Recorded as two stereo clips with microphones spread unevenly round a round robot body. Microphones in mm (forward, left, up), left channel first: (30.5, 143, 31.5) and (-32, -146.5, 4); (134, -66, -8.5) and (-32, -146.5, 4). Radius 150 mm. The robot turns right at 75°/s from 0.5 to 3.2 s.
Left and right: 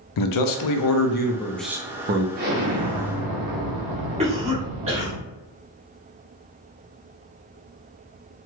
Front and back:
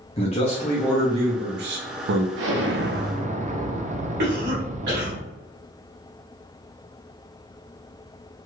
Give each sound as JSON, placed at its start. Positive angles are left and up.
{"t": 0.2, "sound": "a man speaking", "azimuth_deg": 85, "distance_m": 0.5}
{"t": 2.4, "sound": "an explosion", "azimuth_deg": -165, "distance_m": 0.6}
{"t": 4.2, "sound": "a cough", "azimuth_deg": -165, "distance_m": 1.3}